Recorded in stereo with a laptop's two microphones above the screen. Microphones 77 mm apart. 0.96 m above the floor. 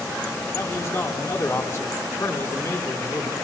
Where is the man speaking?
40° left (ahead or behind), 3.5 m.